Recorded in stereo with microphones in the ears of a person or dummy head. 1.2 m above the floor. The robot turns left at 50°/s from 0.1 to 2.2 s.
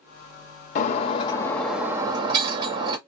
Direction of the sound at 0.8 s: 45° left.